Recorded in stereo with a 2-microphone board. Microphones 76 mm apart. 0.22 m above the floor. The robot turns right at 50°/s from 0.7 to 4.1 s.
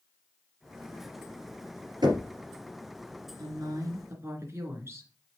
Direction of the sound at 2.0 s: 75° right (ahead or behind).